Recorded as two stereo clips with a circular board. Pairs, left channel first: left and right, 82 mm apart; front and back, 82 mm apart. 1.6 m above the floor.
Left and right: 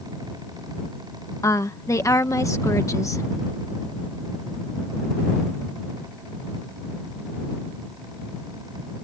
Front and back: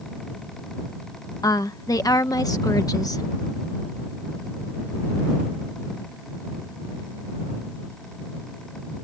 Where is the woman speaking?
40° left.